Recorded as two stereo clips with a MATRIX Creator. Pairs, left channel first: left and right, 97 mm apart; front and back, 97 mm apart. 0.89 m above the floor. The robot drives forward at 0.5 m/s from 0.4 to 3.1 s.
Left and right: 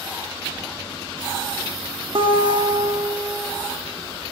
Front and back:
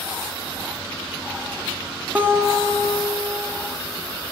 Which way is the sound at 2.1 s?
105° right.